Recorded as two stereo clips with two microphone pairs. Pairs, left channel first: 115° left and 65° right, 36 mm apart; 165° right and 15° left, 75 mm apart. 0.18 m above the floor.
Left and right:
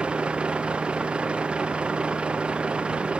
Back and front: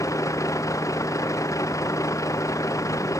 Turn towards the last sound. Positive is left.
turn(degrees=-125)